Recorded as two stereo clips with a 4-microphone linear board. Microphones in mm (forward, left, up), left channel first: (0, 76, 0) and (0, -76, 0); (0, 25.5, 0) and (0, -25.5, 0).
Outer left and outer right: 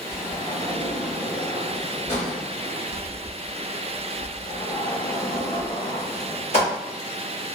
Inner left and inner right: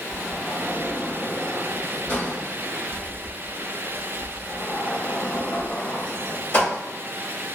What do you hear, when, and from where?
0.1 s a sliding door: 40° left (ahead or behind), 1.2 m